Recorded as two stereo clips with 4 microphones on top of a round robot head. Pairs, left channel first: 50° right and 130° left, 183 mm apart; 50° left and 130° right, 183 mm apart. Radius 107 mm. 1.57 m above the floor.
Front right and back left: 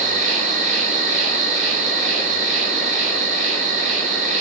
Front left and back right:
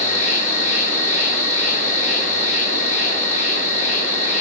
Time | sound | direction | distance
0.0 | an insect | 95° left | 0.9 m